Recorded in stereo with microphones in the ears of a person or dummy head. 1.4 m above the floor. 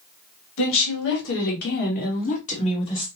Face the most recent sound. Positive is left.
turn(degrees=25)  # may be behind; listen again after turning